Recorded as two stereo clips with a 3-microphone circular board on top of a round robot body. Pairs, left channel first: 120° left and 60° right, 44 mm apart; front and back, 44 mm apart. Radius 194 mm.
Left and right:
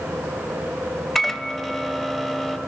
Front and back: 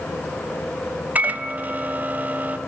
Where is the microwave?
160° right, 1.0 m.